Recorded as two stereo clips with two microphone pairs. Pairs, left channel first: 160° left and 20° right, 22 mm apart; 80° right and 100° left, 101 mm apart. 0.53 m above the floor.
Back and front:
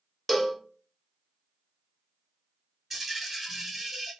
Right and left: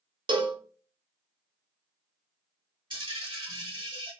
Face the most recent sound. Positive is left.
turn(degrees=65)